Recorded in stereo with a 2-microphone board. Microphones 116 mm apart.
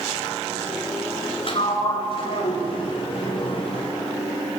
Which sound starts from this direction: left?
A sliding door, at 1.5 s.